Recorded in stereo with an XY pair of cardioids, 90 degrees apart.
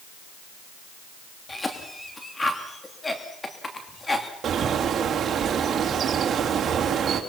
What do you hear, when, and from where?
1.5 s a cough: 25° left, 2.5 m
4.4 s a bird: 60° right, 3 m